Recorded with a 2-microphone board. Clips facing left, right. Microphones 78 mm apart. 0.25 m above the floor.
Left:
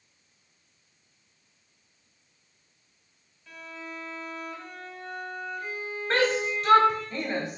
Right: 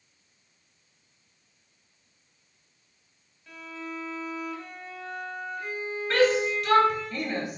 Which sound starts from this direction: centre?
A violin, at 3.5 s.